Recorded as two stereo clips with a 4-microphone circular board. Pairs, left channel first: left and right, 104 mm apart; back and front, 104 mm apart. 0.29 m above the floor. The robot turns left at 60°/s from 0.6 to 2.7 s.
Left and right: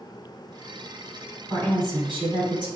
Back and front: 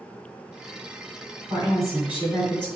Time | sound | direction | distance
1.5 | a woman speaking | 40° right | 2.5 m